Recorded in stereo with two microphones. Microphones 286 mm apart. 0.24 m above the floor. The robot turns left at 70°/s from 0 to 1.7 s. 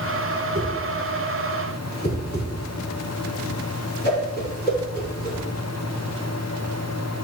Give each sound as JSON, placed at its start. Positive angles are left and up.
{"t": 0.6, "sound": "a whoosh", "side_deg": -30, "distance_m": 1.6}